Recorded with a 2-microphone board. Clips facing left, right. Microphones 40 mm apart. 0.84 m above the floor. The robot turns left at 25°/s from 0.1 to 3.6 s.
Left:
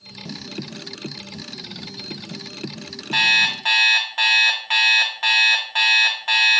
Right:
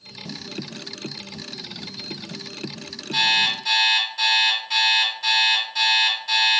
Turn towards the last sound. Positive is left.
turn(degrees=55)  # may be behind; listen again after turning